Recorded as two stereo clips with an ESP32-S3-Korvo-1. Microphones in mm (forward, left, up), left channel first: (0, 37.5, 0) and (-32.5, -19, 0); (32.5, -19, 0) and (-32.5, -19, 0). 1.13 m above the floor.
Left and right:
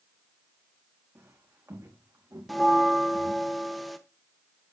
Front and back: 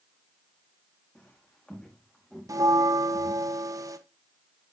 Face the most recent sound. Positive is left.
turn(degrees=150)